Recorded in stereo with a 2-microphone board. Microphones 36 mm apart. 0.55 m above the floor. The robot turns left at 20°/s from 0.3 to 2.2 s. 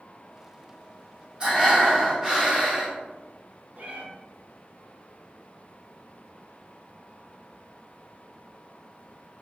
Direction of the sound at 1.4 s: 30° right (ahead or behind).